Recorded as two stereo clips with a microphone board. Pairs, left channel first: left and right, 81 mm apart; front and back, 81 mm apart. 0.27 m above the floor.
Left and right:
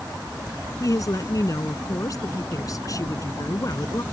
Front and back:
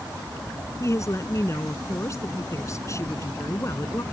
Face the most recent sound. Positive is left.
turn(degrees=50)